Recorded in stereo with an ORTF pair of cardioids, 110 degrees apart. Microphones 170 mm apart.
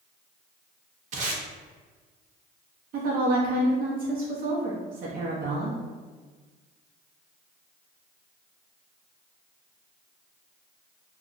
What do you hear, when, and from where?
1.1 s tape being pulled: 45° right, 0.7 m
2.9 s a woman speaking: 55° right, 0.8 m